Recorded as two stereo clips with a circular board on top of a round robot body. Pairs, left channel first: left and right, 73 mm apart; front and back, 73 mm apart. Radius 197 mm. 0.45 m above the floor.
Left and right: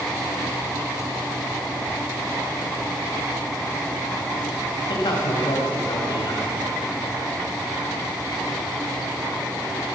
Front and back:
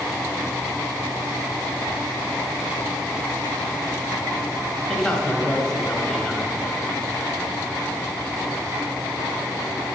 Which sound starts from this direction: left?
A man speaking, at 4.9 s.